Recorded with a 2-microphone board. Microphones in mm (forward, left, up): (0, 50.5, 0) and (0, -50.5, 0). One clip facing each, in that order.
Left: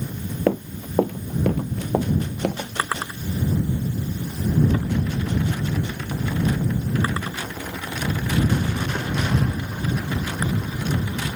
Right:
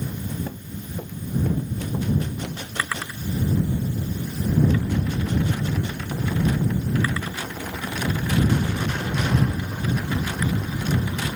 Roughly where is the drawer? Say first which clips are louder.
Left 2 dB; left.